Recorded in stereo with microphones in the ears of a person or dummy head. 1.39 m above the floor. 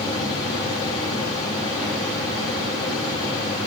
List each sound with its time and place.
0.0 s a fan: 15° left (ahead or behind), 6 m